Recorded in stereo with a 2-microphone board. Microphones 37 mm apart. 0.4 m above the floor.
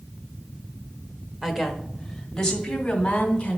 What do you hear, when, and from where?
1.4 s a woman speaking: 10° right (ahead or behind), 1.0 m; by 3.6 s 30° left (ahead or behind), 2.5 m